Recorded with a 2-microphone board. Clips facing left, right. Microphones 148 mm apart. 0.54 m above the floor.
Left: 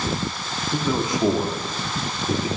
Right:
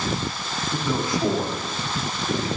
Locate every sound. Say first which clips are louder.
0.7 s a man speaking: left 2 dB; 20° left (ahead or behind), 1.0 m